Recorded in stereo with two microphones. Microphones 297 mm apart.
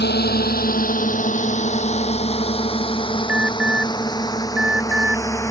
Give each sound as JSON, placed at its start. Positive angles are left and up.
{"t": 0.0, "sound": "a drone", "side_deg": 30}
{"t": 3.3, "sound": "an alarm", "side_deg": -5}